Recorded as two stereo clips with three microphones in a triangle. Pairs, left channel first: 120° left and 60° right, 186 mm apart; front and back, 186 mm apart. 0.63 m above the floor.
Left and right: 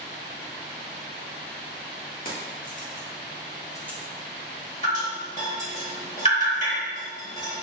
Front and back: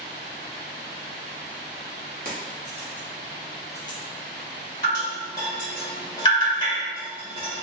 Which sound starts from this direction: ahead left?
Dripping, at 4.8 s.